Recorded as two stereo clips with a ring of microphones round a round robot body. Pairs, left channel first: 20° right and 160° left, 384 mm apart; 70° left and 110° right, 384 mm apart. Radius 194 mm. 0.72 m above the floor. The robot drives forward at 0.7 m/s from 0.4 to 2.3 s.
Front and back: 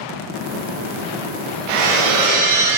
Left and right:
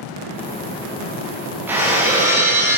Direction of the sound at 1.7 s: 165° left.